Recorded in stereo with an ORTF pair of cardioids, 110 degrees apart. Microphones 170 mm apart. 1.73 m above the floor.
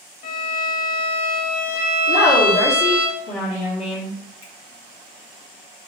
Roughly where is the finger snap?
Ahead left.